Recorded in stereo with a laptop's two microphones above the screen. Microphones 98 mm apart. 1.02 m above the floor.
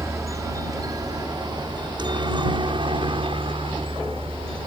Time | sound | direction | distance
0.0 | a helicopter | 30° right (ahead or behind) | ?